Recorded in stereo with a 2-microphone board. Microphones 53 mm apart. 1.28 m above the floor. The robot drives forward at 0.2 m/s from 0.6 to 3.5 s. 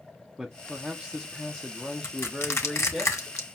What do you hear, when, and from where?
0.4 s a man speaking: 15° right (ahead or behind), 0.6 m; by 3.0 s 10° right (ahead or behind), 1.0 m
2.0 s crushing: 55° left (ahead or behind), 1.4 m; by 3.5 s 65° left (ahead or behind), 1.3 m